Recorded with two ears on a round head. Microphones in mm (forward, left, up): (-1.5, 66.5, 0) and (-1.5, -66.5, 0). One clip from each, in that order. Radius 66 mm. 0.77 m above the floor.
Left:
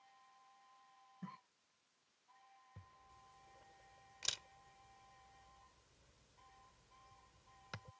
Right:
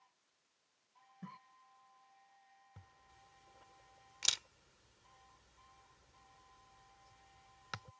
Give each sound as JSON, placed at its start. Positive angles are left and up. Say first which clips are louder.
{"t": 1.2, "sound": "a cough", "louder": "right 1 dB", "side_deg": -5}
{"t": 2.8, "sound": "a camera shutter", "louder": "even", "side_deg": -35}